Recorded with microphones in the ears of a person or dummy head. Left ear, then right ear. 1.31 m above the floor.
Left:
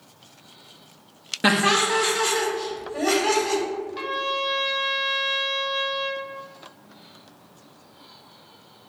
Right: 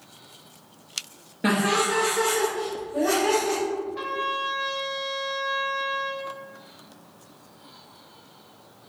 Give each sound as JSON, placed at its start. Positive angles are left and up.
{"t": 1.4, "sound": "laughter", "side_deg": 45, "distance_m": 0.7}
{"t": 4.0, "sound": "a trumpet", "side_deg": 35, "distance_m": 1.1}